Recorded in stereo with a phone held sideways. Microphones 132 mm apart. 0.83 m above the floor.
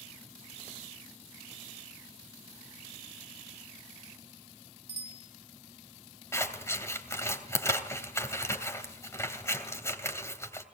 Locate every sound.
4.9 s a bicycle bell: 50° right (ahead or behind), 2.5 m
6.3 s scissors: 20° left (ahead or behind), 2.5 m